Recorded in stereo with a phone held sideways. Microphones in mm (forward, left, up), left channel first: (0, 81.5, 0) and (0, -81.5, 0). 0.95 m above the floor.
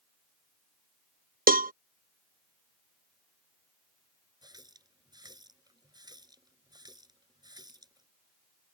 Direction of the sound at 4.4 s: 25° right (ahead or behind).